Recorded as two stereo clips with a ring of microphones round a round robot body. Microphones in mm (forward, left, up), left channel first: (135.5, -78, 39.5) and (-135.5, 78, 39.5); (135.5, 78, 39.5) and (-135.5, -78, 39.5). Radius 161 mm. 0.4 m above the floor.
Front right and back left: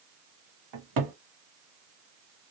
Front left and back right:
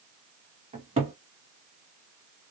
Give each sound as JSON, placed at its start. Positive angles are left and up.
{"t": 0.7, "sound": "a cupboard door", "azimuth_deg": 140, "distance_m": 1.1}